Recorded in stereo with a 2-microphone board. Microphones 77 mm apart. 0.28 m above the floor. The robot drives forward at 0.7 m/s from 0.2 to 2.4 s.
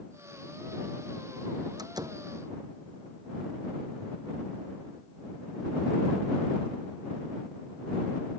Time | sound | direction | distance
1.8 | a door slam | 60° right (ahead or behind) | ?